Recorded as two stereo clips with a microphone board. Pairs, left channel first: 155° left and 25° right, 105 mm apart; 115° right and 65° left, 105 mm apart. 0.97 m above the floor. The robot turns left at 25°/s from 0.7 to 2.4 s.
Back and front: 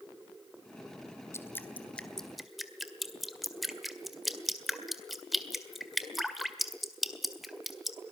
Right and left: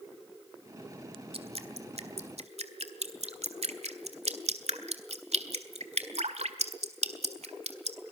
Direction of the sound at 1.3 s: 90° left.